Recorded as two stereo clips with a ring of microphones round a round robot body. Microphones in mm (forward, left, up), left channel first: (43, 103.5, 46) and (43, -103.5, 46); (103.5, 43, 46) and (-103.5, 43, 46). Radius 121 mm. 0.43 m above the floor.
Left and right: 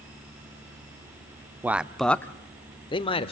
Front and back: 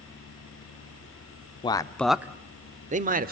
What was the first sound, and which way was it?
A man speaking, 20° right.